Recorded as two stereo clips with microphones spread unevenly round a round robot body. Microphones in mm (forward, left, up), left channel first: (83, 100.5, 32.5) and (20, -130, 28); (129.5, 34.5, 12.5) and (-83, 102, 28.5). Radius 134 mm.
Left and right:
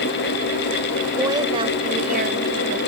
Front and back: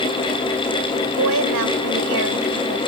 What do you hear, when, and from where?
1.2 s a woman speaking: 175° left; by 2.8 s 155° right